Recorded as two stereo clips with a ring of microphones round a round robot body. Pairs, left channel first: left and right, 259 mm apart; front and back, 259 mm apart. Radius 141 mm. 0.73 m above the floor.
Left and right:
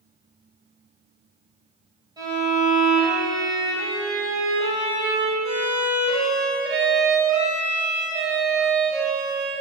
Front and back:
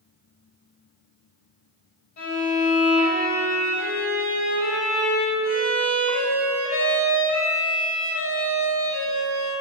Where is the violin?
15° right, 3.5 m.